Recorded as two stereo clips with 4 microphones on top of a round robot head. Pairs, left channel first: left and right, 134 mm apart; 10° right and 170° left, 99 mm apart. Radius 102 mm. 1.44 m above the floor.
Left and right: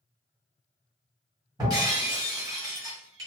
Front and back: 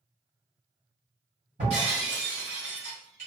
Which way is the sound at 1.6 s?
150° right.